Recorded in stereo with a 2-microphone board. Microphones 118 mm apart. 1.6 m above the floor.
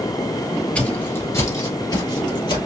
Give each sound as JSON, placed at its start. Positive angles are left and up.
{"t": 0.8, "sound": "footsteps", "side_deg": 10, "distance_m": 1.7}